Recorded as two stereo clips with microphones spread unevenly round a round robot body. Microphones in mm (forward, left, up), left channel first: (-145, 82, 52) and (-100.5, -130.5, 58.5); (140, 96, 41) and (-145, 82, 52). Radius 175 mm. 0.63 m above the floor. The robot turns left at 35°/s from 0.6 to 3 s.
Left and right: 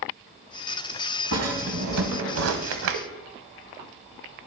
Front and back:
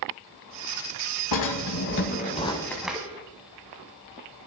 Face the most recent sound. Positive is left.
turn(degrees=-95)